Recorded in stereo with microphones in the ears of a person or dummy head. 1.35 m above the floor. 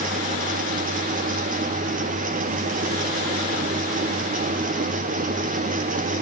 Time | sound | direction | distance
0.0 | a fan | 45° right (ahead or behind) | 1.1 m